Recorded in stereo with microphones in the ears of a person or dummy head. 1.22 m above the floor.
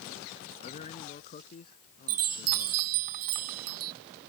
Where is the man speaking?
35° left (ahead or behind); by 2.9 s 40° left (ahead or behind).